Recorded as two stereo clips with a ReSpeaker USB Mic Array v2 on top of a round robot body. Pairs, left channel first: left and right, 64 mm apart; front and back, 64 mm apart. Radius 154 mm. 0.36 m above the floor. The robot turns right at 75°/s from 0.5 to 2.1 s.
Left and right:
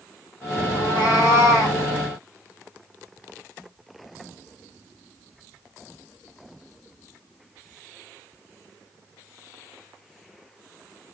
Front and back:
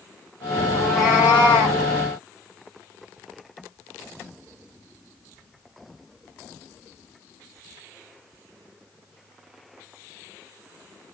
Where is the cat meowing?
70° left, 0.8 m; by 1.8 s 150° left, 0.8 m.